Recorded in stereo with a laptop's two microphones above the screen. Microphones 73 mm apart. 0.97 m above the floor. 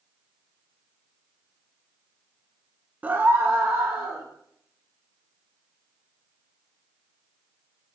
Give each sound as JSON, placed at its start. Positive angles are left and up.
{"t": 3.0, "sound": "a scream", "side_deg": -20, "distance_m": 0.6}